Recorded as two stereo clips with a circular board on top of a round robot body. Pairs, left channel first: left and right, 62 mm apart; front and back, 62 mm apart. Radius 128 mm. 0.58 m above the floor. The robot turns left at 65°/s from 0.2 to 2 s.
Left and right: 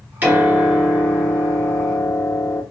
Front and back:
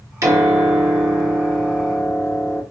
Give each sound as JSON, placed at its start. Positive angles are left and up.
{"t": 0.2, "sound": "a piano", "azimuth_deg": -150, "distance_m": 1.4}